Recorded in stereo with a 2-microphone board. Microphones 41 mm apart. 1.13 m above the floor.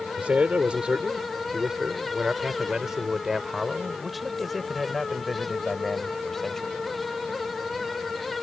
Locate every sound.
0.2 s a man speaking: 30° right (ahead or behind); by 6.8 s 10° left (ahead or behind)